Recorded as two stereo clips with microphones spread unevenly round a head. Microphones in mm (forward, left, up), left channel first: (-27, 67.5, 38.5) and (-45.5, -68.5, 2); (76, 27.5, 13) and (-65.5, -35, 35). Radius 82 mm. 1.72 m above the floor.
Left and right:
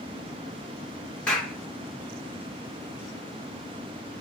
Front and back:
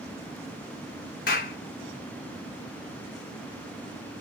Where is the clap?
20° left, 0.8 m.